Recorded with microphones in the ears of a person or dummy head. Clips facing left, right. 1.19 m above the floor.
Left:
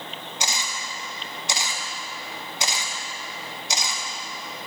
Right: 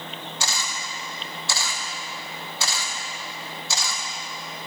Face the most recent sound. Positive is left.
turn(degrees=15)  # may be behind; listen again after turning